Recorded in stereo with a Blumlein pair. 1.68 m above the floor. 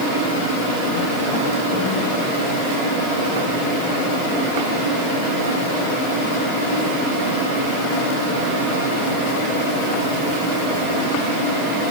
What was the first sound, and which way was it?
Only background noise.